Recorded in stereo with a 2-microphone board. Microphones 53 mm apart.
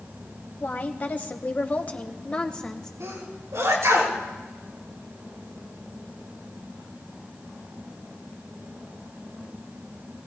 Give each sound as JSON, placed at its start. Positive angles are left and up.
{"t": 0.6, "sound": "a woman speaking", "side_deg": 35, "distance_m": 1.4}
{"t": 3.0, "sound": "a sneeze", "side_deg": -75, "distance_m": 5.0}